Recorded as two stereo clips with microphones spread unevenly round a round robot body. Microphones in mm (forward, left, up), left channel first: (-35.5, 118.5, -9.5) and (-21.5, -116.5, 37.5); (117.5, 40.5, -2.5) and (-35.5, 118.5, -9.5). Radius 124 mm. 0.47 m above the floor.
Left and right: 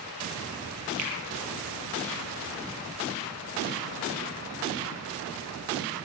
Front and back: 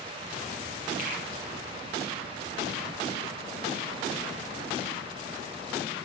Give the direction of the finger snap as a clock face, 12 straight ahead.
3 o'clock.